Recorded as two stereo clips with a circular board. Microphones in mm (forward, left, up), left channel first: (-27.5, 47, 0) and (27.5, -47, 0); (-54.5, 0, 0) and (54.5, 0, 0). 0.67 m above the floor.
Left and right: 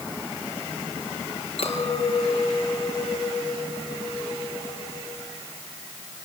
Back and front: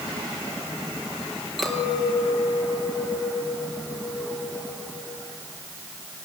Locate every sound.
1.6 s a clink: 90° left, 6 m